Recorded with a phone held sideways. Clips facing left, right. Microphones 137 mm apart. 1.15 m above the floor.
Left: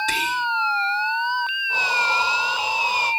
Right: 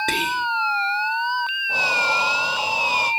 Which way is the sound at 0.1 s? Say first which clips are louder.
Right 1 dB; 60° right (ahead or behind).